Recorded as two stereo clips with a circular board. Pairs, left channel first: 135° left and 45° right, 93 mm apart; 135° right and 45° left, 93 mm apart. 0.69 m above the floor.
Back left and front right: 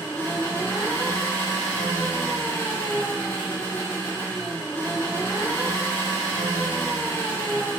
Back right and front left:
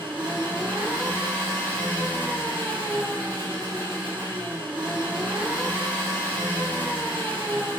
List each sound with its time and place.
0.0 s an engine running: 65° left, 1.3 m